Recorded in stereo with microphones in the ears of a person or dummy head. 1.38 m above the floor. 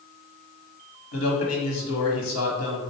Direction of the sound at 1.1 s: 80° left.